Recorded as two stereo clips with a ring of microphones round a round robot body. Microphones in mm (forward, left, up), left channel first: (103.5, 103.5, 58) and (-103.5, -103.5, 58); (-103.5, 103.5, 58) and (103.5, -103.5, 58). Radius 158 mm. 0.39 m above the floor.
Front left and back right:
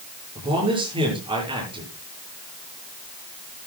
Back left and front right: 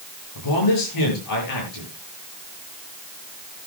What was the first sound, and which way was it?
A man speaking, 150° left.